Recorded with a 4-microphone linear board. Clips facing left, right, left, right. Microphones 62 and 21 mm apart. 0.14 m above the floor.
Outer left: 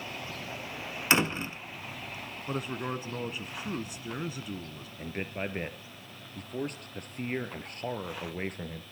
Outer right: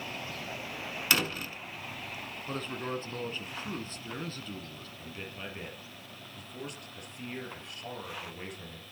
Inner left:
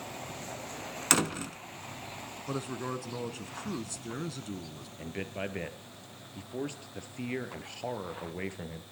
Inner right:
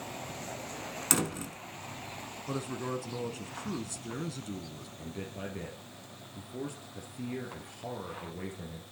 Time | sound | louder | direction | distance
1.1 | a door slam | outer left 4 dB, inner left 3 dB | 25° left (ahead or behind) | 1.1 m
2.5 | a man speaking | outer left 2 dB, even | 10° left (ahead or behind) | 1.4 m
5.0 | a man speaking | outer left 8 dB, inner left 4 dB | 50° left (ahead or behind) | 2.5 m